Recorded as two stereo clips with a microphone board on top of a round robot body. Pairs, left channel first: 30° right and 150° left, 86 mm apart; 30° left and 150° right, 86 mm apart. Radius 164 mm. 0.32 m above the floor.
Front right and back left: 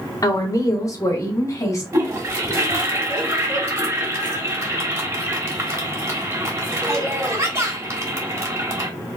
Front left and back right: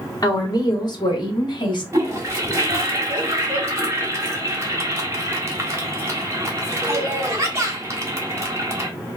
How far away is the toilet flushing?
About 1.6 m.